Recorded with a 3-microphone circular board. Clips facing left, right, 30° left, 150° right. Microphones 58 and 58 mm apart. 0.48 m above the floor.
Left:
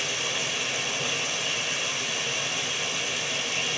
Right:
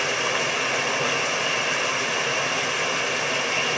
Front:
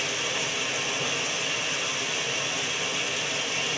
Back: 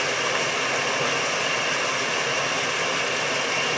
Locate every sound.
0.0 s running water: 125° right, 0.9 m